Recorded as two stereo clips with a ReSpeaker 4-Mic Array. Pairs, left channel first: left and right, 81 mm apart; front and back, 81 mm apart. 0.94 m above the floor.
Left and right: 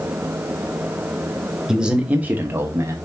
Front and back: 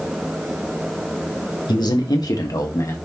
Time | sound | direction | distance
1.7 | a man speaking | 10° right | 1.5 m